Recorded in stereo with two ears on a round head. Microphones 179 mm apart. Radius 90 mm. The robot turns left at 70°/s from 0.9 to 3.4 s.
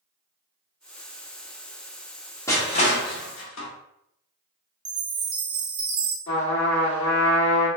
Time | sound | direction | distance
2.5 | crushing | 15° left (ahead or behind) | 0.8 m
4.8 | a chime | 40° right (ahead or behind) | 1.0 m
6.3 | a trumpet | 65° left (ahead or behind) | 1.9 m